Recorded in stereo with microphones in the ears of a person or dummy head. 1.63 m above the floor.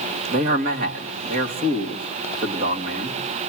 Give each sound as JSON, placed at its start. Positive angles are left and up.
{"t": 0.3, "sound": "a man speaking", "side_deg": -45, "distance_m": 2.5}